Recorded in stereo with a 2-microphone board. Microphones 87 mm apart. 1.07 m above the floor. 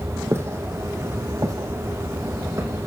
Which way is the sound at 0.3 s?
30° right (ahead or behind).